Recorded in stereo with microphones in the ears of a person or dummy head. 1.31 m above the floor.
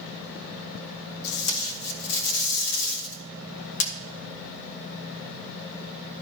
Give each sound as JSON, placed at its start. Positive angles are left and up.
{"t": 1.2, "sound": "tape being pulled", "side_deg": 75, "distance_m": 1.9}